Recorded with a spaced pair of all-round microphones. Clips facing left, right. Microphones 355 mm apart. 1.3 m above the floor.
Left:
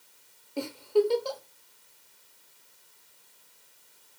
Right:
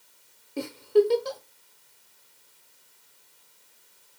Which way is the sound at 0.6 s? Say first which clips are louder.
Right 4 dB; 30° right (ahead or behind).